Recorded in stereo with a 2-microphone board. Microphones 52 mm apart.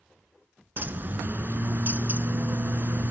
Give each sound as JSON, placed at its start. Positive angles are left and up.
{"t": 0.8, "sound": "a bird", "side_deg": -40, "distance_m": 0.7}